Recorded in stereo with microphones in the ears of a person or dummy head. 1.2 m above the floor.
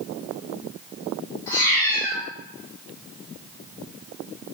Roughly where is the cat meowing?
Centre.